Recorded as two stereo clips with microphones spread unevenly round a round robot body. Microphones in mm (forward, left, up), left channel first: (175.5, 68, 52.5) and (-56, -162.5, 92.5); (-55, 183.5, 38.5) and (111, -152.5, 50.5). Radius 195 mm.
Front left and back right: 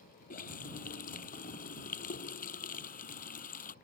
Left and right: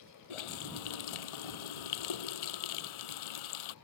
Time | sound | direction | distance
0.3 | a running tap | 115° left | ?